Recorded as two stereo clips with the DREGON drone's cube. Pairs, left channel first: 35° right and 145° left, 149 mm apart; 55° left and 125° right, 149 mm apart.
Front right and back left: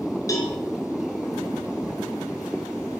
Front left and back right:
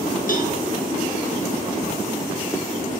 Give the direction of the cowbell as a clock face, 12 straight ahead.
11 o'clock.